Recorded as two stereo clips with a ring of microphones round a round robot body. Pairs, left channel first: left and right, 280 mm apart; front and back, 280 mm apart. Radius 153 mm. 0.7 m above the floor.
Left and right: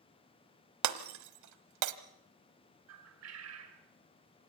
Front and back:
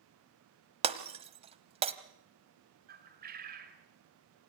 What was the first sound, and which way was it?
Breaking glass, 110° right.